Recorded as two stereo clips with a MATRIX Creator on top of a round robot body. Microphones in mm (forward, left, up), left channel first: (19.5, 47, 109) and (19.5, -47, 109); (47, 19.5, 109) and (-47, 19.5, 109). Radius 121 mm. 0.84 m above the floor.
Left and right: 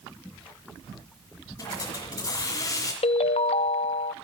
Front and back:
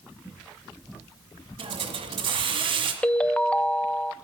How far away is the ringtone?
About 0.6 m.